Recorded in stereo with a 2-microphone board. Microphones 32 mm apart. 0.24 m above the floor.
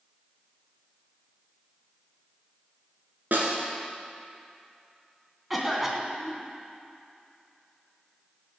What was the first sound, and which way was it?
A snare drum, 70° right (ahead or behind).